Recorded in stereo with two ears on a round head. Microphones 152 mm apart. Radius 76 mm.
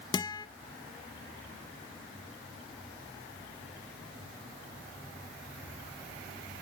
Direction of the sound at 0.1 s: 25° left (ahead or behind).